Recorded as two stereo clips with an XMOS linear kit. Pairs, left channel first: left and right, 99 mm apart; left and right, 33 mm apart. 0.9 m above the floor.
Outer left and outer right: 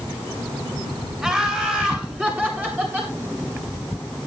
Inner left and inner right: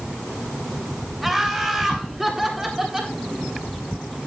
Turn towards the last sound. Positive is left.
turn(degrees=-20)  # may be behind; listen again after turning